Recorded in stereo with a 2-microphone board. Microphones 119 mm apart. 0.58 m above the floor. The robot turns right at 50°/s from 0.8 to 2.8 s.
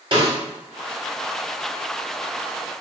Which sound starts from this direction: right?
A snare drum, at 0.1 s.